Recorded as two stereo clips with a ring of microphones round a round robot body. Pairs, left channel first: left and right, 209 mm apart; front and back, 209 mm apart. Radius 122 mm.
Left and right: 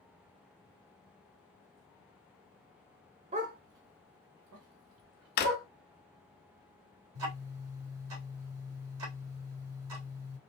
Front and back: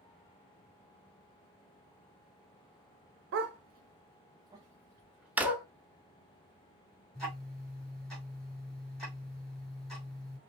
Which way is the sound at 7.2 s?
90° right.